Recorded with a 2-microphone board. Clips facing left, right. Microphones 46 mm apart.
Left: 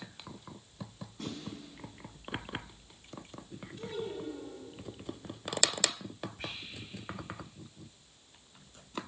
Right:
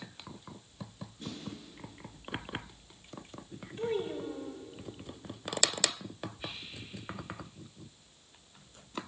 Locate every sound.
1.2 s a snare drum: 80° left, 7.5 m
3.8 s a child speaking: 40° right (ahead or behind), 2.5 m
6.4 s whispering: 75° left (ahead or behind), 5.5 m